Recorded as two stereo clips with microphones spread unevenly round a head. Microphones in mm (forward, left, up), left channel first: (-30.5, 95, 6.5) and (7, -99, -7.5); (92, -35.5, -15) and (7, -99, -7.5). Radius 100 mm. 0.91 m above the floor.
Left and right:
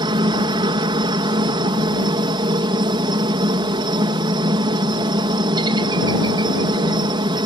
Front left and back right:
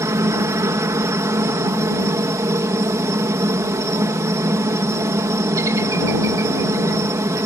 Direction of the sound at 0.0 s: 120° right.